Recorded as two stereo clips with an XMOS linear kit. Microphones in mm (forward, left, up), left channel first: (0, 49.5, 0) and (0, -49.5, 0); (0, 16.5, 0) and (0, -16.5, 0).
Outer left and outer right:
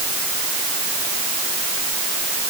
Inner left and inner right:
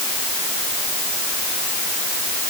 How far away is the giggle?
No giggle in this recording.